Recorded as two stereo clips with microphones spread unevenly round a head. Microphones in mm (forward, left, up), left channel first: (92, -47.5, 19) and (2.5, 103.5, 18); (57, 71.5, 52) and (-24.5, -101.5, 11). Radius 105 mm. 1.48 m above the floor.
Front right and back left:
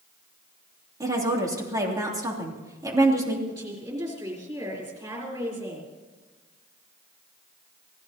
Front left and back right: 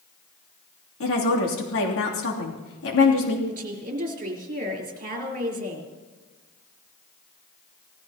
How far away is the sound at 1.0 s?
About 3 m.